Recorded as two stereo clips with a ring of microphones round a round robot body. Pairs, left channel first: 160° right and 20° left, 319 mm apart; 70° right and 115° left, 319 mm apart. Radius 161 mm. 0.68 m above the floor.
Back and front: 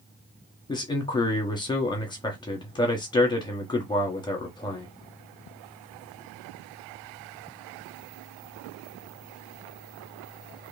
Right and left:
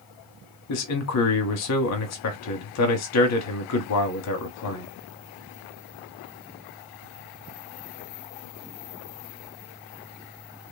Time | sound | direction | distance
0.7 | a man speaking | 85° right | 1.2 m